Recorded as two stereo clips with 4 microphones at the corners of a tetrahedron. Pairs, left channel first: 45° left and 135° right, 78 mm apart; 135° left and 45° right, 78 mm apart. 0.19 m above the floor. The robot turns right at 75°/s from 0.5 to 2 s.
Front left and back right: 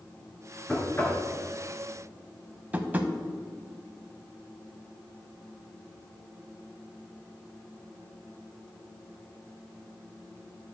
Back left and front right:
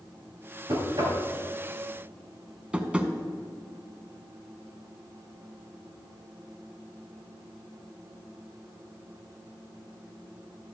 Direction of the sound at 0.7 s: 35° right.